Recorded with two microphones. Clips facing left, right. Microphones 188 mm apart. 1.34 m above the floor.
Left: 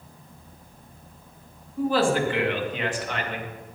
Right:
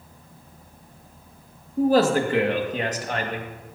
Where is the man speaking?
40° right (ahead or behind), 1.7 m.